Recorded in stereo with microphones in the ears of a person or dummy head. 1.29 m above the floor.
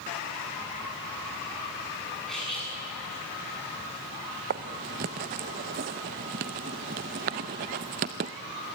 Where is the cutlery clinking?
Centre (ahead or behind), 8 m.